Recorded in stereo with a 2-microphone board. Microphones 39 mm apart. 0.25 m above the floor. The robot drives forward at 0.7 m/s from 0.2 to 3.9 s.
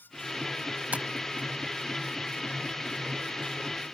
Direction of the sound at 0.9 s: 40° right (ahead or behind).